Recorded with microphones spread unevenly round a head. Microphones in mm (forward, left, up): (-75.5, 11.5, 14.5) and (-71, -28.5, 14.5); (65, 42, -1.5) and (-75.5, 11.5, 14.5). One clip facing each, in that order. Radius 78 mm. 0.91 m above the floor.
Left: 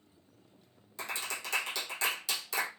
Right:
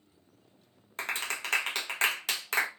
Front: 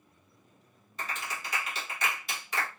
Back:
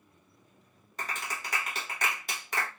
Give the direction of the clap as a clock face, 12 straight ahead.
4 o'clock.